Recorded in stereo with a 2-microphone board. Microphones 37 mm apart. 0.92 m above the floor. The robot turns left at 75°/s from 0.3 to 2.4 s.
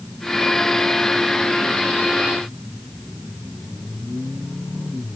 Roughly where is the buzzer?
I don't hear a buzzer.